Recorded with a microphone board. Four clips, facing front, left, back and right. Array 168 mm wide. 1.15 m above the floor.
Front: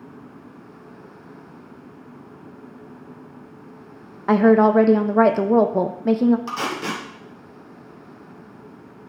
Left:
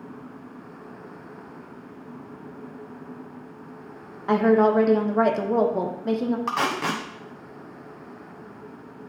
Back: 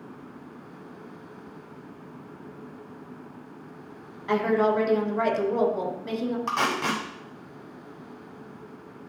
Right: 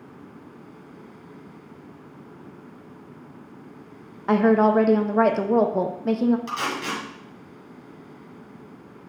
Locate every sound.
4.3 s a woman speaking: 10° right, 0.7 m
6.5 s tape being pulled: 115° left, 1.6 m